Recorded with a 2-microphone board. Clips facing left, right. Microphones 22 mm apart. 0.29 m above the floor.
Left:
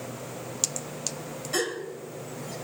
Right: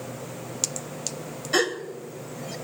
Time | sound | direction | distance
1.5 | a gasp | 30° right (ahead or behind) | 1.0 m